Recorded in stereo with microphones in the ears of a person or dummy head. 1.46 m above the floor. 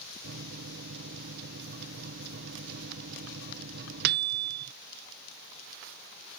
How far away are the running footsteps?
No running footsteps in this recording.